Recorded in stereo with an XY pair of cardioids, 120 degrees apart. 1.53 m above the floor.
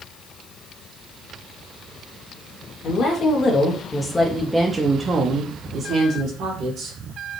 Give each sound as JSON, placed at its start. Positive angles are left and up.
{"t": 2.8, "sound": "a woman speaking", "azimuth_deg": 60, "distance_m": 1.2}